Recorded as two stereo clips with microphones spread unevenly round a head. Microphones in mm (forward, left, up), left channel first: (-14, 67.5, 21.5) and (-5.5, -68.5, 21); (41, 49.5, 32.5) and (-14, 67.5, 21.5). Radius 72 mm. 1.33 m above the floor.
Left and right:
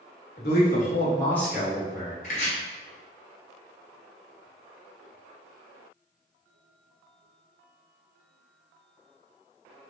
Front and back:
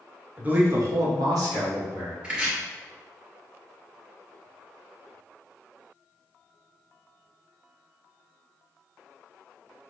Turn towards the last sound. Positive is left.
turn(degrees=85)